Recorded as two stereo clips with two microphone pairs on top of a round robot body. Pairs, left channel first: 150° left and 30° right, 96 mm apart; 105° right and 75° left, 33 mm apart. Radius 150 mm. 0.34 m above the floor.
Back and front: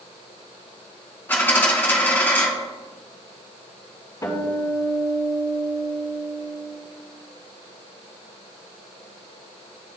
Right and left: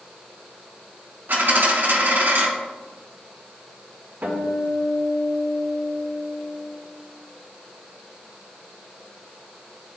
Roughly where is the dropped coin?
Left.